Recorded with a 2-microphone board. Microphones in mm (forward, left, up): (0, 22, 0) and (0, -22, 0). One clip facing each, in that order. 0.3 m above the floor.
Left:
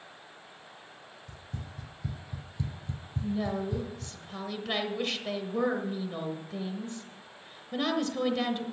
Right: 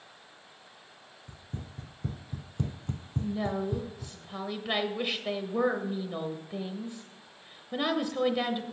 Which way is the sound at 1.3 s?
35° right (ahead or behind).